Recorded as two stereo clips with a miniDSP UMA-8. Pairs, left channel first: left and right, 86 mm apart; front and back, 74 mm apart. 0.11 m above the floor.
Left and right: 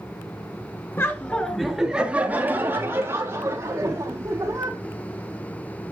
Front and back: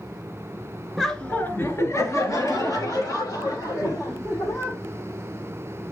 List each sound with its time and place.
1.0 s laughter: 80° left, 1.2 m; by 4.8 s 35° right, 4.5 m